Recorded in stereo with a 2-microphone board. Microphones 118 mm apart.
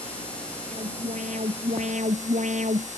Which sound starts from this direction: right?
An alarm, at 0.7 s.